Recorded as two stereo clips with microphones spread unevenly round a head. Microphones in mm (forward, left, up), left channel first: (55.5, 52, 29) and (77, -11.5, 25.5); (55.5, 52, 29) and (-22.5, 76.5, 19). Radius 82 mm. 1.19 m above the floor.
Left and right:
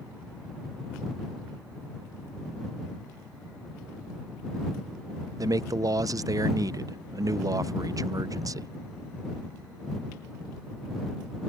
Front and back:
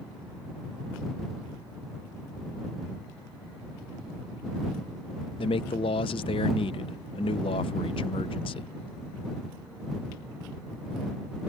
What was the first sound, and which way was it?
A man speaking, 40° right.